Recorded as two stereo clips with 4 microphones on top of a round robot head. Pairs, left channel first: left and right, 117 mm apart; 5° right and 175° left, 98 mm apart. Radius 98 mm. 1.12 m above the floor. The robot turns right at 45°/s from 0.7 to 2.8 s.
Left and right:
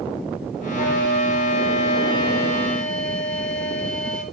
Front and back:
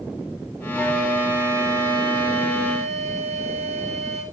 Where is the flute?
75° left, 4 m; by 4.2 s 170° left, 4 m.